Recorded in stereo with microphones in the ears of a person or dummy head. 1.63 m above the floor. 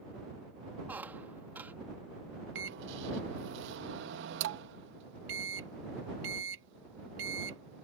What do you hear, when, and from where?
0.9 s a squeak: 10° right (ahead or behind)
2.5 s a microwave: 60° right (ahead or behind)